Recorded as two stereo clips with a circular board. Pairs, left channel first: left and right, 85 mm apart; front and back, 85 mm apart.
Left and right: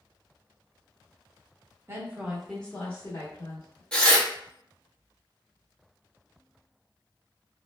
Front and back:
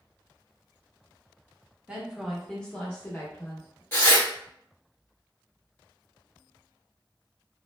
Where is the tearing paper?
25° left, 1.1 m.